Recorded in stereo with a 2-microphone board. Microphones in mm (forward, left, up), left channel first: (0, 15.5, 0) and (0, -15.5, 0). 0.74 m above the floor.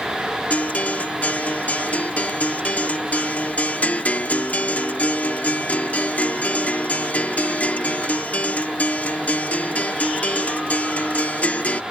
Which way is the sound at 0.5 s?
60° left (ahead or behind).